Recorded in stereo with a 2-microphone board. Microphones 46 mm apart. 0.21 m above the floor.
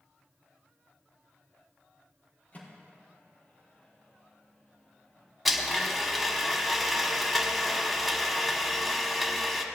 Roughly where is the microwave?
Left.